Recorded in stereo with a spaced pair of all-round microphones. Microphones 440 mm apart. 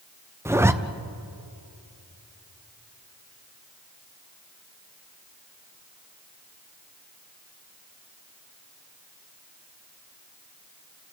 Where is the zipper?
5° right (ahead or behind), 0.7 m.